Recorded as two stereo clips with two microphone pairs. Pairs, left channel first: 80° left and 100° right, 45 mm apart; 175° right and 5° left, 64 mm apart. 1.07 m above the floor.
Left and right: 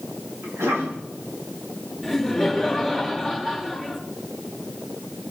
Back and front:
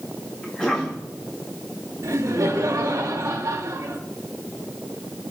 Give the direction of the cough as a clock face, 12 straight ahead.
3 o'clock.